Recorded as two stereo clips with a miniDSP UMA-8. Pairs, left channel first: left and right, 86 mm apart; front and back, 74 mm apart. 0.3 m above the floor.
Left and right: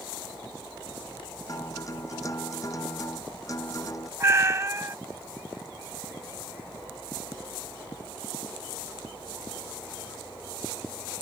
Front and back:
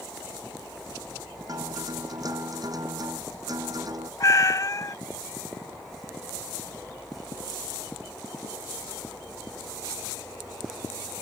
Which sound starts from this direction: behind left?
A guitar, at 1.5 s.